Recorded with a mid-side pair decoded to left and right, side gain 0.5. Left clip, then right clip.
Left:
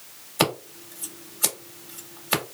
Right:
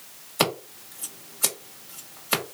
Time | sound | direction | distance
0.4 | scissors | 5° left | 1.5 m